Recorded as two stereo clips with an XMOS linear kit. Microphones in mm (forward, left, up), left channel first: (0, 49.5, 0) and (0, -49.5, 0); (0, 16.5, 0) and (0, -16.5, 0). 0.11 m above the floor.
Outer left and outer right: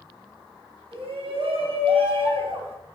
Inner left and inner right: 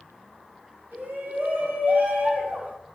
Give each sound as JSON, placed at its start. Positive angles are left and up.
{"t": 0.9, "sound": "a shout", "side_deg": -65, "distance_m": 3.5}